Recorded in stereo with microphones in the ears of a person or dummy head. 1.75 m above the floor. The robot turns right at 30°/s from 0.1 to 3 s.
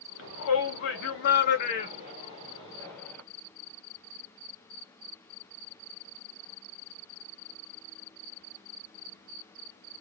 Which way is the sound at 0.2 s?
70° left (ahead or behind).